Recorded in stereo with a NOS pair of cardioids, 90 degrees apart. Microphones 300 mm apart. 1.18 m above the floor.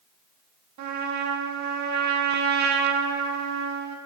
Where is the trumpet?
65° right, 1.8 m.